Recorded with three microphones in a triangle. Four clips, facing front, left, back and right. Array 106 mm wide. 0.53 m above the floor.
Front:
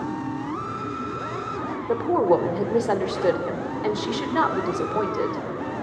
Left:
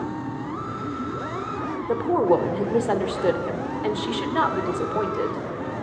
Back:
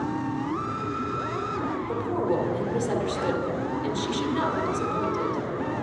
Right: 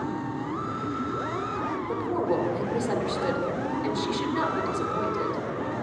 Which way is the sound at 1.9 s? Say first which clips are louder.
Left 8 dB, front 8 dB; 45° left.